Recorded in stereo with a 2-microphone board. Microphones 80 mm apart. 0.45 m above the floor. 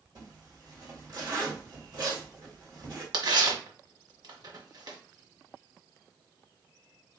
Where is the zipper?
55° right (ahead or behind), 2 m.